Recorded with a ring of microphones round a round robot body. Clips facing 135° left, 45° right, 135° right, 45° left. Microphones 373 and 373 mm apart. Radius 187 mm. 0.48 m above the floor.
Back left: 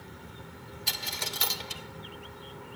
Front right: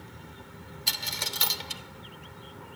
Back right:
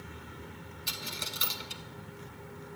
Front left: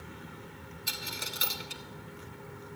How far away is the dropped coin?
About 0.7 m.